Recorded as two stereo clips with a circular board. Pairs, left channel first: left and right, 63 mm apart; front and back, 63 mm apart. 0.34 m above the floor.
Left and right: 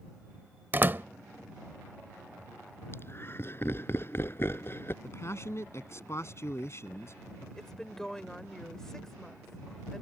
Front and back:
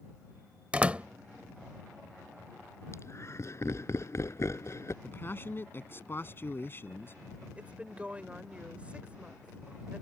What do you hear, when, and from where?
0.7 s a door slam: 120° right
2.9 s laughter: 40° left
5.0 s a man speaking: 50° left
7.6 s a woman speaking: 160° left